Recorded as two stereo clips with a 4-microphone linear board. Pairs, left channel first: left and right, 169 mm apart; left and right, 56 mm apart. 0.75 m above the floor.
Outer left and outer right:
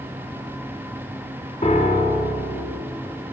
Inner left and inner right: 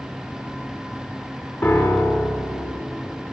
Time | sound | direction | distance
1.6 | a piano | 40° left (ahead or behind) | 0.6 m